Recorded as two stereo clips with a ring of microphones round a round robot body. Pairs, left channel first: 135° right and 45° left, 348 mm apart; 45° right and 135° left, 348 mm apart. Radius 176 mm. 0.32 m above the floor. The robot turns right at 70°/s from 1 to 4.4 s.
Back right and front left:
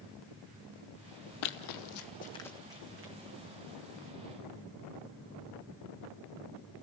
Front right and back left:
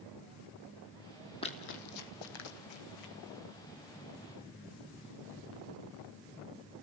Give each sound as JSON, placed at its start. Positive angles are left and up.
{"t": 1.4, "sound": "running footsteps", "azimuth_deg": -120, "distance_m": 0.9}